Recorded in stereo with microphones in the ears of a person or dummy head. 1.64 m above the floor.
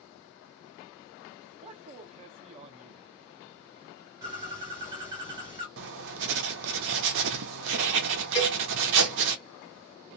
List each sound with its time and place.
1.6 s a man speaking: 35° right (ahead or behind), 0.5 m
4.2 s a bird: 20° right (ahead or behind), 1.9 m
5.8 s writing: 65° right (ahead or behind), 0.5 m
8.3 s a cowbell: 35° left (ahead or behind), 1.6 m